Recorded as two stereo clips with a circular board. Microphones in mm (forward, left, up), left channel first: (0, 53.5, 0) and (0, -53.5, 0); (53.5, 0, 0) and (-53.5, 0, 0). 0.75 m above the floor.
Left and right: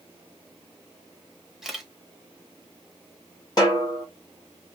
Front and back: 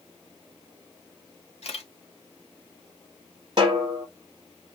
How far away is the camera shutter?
About 1.1 m.